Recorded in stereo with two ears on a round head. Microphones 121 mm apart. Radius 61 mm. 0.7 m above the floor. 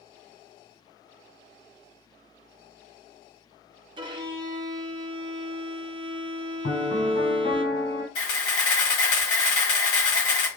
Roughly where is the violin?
Right.